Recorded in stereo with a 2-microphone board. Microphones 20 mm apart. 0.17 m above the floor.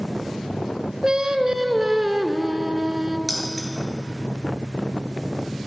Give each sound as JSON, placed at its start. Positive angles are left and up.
{"t": 1.0, "sound": "singing", "side_deg": -40, "distance_m": 0.6}
{"t": 3.3, "sound": "keys jangling", "side_deg": 15, "distance_m": 2.0}